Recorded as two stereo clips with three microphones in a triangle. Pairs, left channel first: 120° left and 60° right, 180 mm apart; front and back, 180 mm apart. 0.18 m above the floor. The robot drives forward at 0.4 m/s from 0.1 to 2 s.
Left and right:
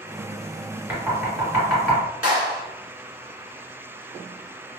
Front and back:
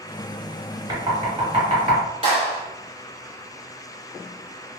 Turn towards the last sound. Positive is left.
turn(degrees=-140)